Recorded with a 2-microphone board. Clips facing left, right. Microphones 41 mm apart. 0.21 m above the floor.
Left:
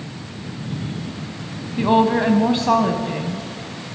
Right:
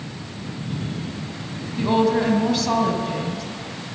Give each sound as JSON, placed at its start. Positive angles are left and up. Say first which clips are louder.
{"t": 1.8, "sound": "a woman speaking", "louder": "left 3 dB", "side_deg": 30, "distance_m": 1.1}